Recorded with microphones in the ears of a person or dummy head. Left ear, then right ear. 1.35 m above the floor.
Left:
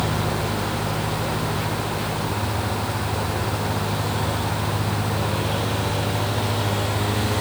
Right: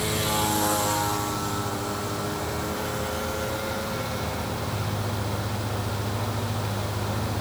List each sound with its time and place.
Only background noise.